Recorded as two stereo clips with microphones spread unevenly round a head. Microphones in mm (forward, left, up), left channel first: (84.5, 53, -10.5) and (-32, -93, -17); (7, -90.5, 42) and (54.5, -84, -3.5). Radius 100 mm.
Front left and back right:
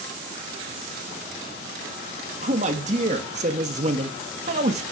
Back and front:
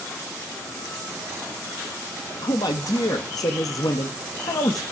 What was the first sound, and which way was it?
A man speaking, 175° left.